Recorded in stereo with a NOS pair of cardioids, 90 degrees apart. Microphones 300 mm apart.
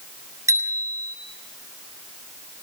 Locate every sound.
0.5 s a bicycle bell: 10° right, 7 m